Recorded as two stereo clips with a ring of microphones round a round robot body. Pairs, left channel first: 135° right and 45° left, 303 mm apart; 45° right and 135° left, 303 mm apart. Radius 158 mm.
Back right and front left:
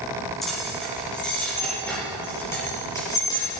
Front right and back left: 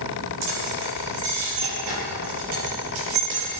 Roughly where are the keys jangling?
Behind left.